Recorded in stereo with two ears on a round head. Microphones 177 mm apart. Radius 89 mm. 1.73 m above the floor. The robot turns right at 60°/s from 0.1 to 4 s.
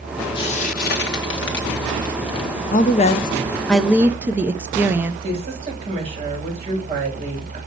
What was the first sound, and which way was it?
Frying, 25° left (ahead or behind).